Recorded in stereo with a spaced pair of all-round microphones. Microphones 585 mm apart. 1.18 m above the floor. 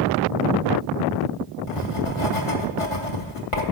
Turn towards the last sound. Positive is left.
turn(degrees=60)  # may be behind; listen again after turning